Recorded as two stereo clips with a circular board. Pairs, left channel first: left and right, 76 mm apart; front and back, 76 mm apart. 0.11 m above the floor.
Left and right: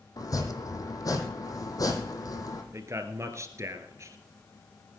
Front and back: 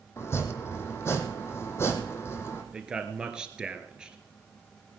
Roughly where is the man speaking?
Right.